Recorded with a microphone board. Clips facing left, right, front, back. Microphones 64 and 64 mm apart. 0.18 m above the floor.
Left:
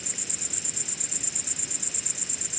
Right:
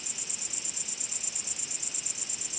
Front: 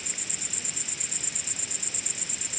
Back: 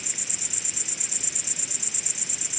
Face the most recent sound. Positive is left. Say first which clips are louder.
# left 5 dB, even
turn(degrees=95)